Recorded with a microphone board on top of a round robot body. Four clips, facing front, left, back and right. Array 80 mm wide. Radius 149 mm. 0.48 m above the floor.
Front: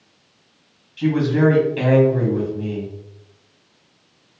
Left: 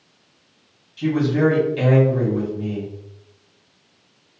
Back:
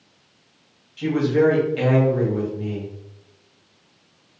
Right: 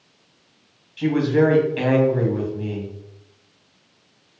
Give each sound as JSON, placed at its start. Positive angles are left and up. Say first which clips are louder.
{"t": 1.0, "sound": "a man speaking", "louder": "right 1 dB, front 1 dB", "azimuth_deg": -80, "distance_m": 1.6}